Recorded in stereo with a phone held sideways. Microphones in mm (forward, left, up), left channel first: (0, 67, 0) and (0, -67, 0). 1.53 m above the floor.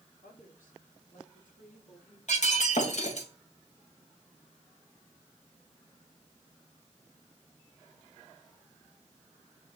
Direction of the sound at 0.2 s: 85° left.